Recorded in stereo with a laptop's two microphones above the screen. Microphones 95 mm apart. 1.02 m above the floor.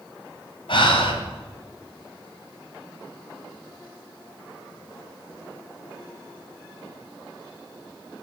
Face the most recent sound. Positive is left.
turn(degrees=60)  # may be behind; listen again after turning